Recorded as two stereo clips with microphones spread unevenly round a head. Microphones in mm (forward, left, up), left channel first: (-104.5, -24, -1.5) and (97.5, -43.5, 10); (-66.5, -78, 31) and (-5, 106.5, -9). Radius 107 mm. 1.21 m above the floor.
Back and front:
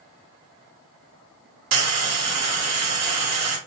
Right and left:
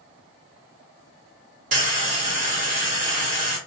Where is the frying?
15° left, 0.7 m.